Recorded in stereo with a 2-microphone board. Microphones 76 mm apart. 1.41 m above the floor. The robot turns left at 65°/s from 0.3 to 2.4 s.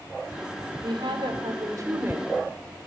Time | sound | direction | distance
0.8 | a woman speaking | 70° right | 4.5 m